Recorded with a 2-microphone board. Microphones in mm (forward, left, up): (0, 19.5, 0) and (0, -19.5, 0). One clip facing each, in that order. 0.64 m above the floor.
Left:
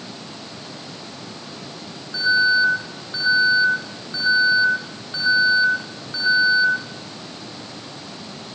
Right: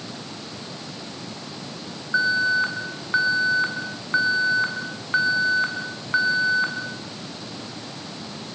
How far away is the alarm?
About 6.5 m.